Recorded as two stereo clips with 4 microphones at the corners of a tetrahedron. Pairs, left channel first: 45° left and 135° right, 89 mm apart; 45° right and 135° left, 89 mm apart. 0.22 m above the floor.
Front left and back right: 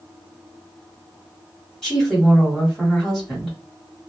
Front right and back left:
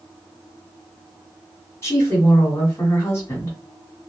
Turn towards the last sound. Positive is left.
turn(degrees=-40)